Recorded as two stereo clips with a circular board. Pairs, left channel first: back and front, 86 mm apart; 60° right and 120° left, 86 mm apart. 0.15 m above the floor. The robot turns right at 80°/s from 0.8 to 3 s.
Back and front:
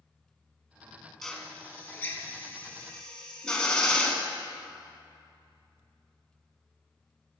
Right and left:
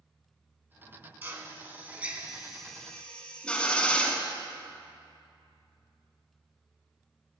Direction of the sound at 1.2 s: 105° left.